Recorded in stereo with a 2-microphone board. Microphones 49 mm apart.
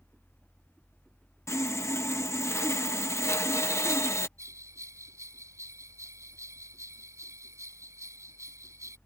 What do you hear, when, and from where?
1.5 s sawing: 70° left (ahead or behind)
4.4 s a bell: 85° right